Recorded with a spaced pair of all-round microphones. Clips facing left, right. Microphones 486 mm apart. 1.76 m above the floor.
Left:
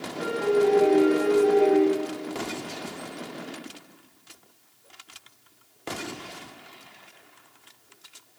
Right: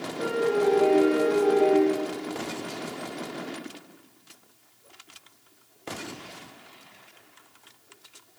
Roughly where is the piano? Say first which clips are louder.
Left 2 dB; right.